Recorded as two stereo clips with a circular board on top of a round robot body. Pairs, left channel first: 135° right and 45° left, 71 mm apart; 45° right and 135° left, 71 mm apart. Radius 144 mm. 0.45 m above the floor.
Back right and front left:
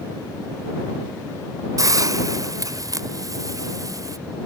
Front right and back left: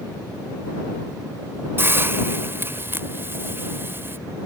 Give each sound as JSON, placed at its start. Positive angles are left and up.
{"t": 1.8, "sound": "a hiss", "azimuth_deg": 80}